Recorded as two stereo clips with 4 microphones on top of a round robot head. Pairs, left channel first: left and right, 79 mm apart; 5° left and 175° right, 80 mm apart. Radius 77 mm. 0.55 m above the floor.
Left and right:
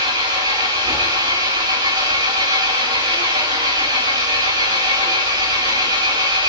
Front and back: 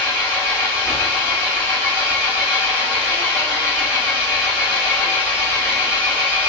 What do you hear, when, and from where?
0.0 s an engine running: 100° right, 5 m